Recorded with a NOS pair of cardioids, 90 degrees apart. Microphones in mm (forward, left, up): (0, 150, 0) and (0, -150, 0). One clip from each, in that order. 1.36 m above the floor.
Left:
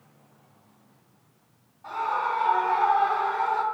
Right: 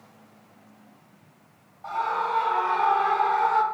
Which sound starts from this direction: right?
A scream, at 1.8 s.